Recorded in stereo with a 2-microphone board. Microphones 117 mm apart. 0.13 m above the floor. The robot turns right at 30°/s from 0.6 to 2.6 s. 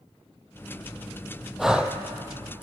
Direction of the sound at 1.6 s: 5° right (ahead or behind).